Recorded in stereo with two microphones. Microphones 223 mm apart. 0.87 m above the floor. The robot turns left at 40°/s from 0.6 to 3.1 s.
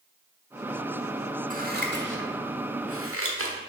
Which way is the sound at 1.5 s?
35° right (ahead or behind).